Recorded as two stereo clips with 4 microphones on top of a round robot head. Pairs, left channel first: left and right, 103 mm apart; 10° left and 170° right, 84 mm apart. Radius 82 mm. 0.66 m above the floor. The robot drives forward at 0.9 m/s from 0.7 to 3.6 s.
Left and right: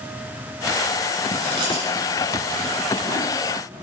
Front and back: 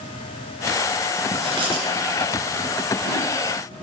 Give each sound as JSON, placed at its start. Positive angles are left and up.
{"t": 1.3, "sound": "chewing", "azimuth_deg": -140, "distance_m": 2.5}